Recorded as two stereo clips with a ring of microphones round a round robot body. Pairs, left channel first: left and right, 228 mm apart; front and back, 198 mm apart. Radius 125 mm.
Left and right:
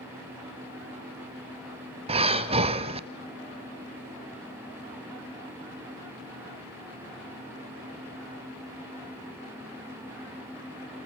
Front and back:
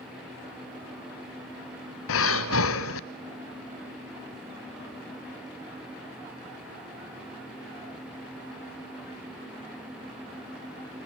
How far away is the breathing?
About 1.0 m.